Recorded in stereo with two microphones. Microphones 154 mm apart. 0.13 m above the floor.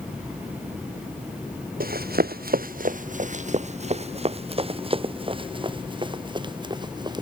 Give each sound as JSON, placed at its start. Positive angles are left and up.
{"t": 1.8, "sound": "running footsteps", "side_deg": -75}